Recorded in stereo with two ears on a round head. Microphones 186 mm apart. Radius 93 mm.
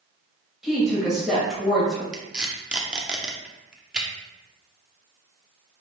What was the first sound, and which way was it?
A woman speaking, centre (ahead or behind).